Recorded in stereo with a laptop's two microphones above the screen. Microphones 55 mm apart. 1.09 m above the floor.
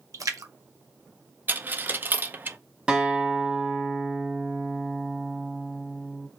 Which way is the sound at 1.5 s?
35° right (ahead or behind).